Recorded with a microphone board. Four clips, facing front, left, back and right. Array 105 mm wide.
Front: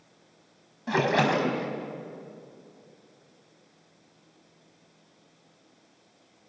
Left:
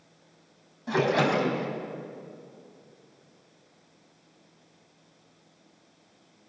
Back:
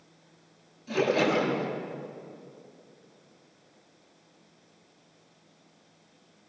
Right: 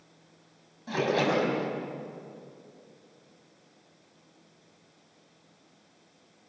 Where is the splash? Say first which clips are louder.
Left 2 dB, front 1 dB; 15° left, 4.5 m.